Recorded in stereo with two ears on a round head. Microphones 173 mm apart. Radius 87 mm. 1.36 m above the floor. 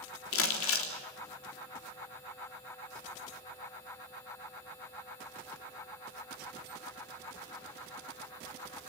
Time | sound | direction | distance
0.3 | crumpling | 80° left | 3.5 m